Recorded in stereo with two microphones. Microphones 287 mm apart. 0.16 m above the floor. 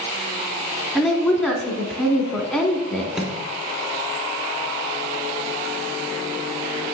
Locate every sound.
0.9 s a woman speaking: centre (ahead or behind), 1.2 m
3.1 s a microwave: centre (ahead or behind), 1.0 m